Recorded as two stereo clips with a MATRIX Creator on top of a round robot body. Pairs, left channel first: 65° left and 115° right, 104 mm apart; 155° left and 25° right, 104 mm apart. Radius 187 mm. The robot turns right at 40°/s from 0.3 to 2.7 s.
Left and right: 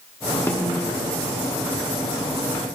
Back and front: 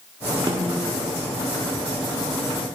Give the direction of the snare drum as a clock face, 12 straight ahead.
12 o'clock.